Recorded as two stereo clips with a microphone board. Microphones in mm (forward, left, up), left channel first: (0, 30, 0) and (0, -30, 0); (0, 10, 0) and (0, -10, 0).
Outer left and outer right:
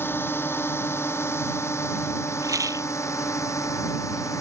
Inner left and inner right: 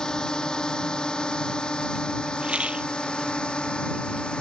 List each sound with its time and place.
0.0 s a drone: 40° left (ahead or behind); by 4.4 s 60° left (ahead or behind)
2.4 s a rattle: 75° right (ahead or behind)